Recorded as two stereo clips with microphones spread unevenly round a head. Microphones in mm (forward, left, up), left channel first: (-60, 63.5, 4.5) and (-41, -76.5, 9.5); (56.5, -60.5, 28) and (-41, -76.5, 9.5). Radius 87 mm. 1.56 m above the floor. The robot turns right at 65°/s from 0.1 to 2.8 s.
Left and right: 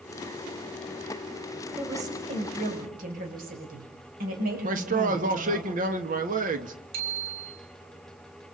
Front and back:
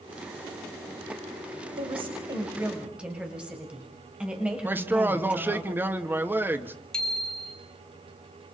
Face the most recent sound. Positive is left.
turn(degrees=-70)